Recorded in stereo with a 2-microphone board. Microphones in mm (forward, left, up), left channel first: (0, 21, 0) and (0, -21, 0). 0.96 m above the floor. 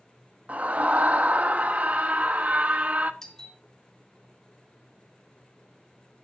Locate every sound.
0.5 s a scream: 40° right (ahead or behind), 1.3 m
3.2 s a doorbell: 15° left (ahead or behind), 2.5 m